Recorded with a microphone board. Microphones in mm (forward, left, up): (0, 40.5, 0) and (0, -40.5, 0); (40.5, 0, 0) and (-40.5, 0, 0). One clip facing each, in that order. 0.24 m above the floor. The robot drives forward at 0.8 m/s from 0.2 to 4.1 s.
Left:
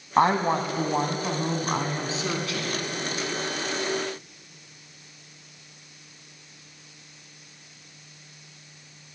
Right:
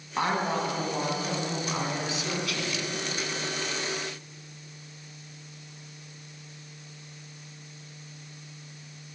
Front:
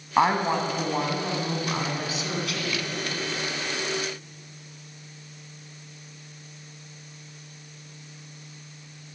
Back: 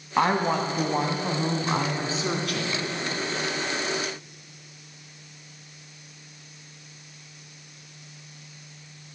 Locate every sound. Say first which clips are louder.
0.2 s a woman speaking: left 6 dB, front 1 dB; 75° left, 1.7 m; by 2.8 s 145° left, 2.5 m